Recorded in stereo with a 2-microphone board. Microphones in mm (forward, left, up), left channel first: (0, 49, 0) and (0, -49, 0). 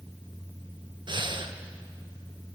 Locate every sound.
1.1 s breathing: 60° right (ahead or behind), 0.6 m